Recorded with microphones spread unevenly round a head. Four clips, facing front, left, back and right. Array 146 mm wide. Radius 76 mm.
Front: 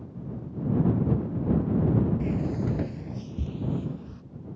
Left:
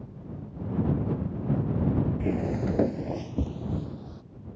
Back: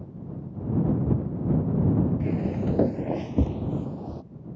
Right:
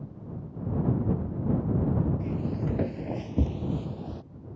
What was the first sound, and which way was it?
Footsteps, 95° left.